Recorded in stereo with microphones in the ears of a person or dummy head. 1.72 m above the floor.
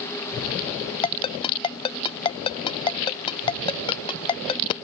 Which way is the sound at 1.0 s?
25° left (ahead or behind).